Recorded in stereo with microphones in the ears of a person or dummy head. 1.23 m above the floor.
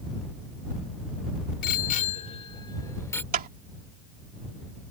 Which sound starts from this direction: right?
A clap, at 3.3 s.